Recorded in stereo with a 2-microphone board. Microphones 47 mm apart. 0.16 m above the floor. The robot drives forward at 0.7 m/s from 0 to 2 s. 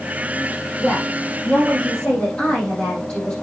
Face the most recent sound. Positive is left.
turn(degrees=30)  # may be behind; listen again after turning